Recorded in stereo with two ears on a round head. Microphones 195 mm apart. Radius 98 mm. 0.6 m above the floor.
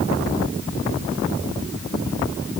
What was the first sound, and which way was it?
Only background noise.